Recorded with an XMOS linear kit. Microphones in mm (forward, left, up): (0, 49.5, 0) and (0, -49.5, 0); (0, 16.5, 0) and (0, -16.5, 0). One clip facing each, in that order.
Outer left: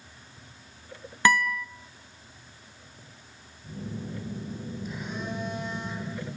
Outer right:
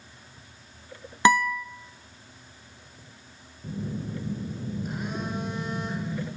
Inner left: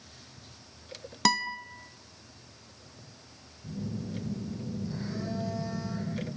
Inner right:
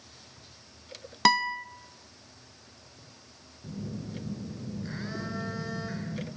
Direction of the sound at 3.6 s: 50° right (ahead or behind).